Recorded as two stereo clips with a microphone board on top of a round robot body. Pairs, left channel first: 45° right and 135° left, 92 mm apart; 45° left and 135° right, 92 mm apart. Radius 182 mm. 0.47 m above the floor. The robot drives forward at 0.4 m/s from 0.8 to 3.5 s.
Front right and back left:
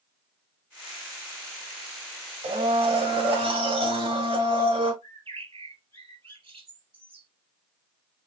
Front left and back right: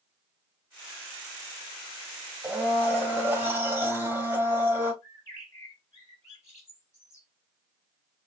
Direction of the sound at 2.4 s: 150° left.